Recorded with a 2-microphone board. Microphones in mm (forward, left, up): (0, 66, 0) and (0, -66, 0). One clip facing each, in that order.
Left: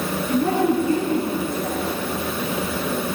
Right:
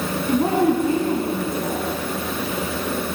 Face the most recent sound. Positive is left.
turn(degrees=-65)  # may be behind; listen again after turning